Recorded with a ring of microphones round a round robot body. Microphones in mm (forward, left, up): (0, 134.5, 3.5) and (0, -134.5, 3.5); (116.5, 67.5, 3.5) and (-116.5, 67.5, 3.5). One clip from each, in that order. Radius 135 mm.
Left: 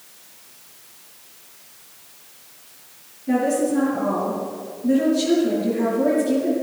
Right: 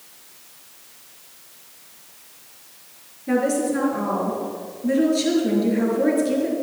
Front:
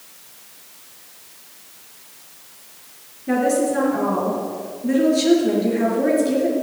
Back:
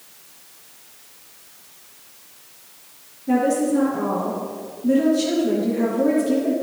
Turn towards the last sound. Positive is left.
turn(degrees=-45)